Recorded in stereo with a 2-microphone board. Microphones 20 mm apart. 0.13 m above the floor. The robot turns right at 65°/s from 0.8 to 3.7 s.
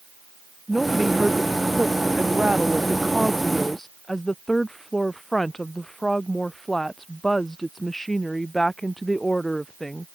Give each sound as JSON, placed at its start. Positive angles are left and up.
{"t": 0.7, "sound": "a woman speaking", "azimuth_deg": 180}